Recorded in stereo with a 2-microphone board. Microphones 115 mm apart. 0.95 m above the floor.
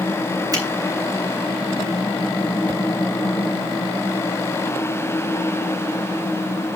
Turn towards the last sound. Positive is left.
turn(degrees=-35)  # may be behind; listen again after turning